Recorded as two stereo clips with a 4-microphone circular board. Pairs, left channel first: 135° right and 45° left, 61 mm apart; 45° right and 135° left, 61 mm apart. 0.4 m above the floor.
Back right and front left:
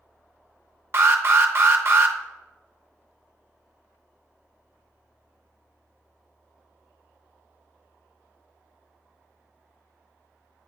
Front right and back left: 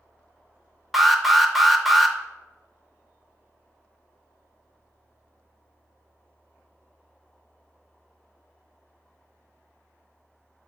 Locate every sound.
0.9 s an alarm: 45° left, 0.6 m